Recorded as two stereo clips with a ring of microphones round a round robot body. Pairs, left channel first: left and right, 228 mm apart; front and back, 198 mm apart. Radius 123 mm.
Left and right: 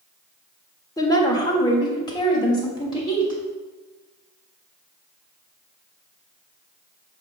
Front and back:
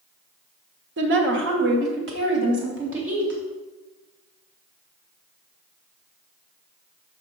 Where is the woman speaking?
165° left, 1.6 m; by 3.4 s 160° left, 4.5 m.